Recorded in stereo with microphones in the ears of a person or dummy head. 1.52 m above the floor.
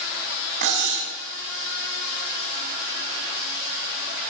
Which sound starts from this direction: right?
Cutlery clinking, at 0.6 s.